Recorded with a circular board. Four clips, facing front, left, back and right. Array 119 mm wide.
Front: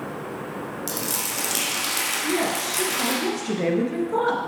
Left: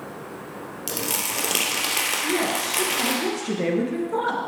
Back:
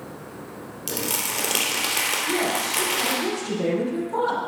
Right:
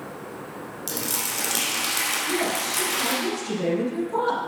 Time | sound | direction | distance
0.9 | crumpling | 120° left | 2.5 m
2.2 | a woman speaking | 50° left | 2 m